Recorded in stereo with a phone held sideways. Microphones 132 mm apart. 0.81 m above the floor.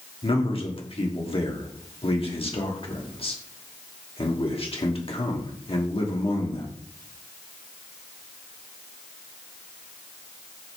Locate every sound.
0.2 s a man speaking: 45° left (ahead or behind), 1.3 m